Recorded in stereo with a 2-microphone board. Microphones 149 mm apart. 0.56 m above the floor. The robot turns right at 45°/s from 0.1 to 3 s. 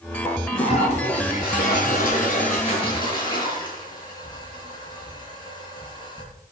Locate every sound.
0.2 s a toilet flushing: 20° left, 7.5 m; by 6.3 s 145° left, 7.5 m